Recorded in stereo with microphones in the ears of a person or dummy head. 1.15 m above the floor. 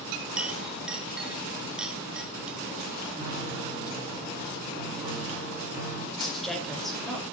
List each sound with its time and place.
0.4 s a clink: 10° right (ahead or behind), 1.7 m
3.2 s a piano: 20° right (ahead or behind), 6.5 m
6.2 s a woman speaking: centre (ahead or behind), 5.5 m